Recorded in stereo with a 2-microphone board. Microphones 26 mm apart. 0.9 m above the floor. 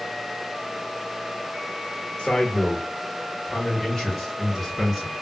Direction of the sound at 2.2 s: 25° left (ahead or behind).